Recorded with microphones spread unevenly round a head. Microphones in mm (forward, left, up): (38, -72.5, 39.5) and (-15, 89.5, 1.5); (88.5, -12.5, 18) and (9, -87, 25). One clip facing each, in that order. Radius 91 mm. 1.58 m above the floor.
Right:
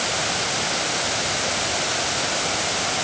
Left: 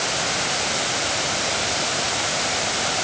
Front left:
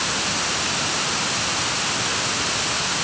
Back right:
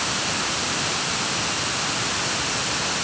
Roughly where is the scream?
No scream in this recording.